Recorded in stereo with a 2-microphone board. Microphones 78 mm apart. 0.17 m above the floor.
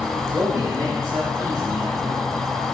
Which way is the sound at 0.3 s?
30° right (ahead or behind).